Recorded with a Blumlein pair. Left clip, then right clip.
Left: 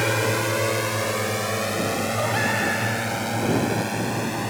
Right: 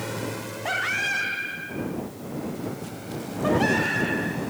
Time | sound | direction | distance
0.0 | a drone | 65° left | ?